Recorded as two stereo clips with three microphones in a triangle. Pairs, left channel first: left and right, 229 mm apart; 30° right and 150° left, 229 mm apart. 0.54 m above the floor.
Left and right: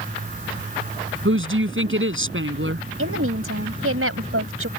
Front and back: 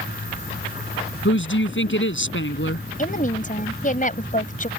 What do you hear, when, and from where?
1.2 s a woman speaking: 60° right
3.0 s a woman speaking: 85° right